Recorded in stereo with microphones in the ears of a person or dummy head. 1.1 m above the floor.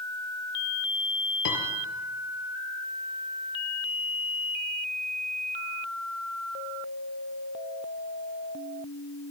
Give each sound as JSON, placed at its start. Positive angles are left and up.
{"t": 1.4, "sound": "a piano", "side_deg": 70, "distance_m": 5.0}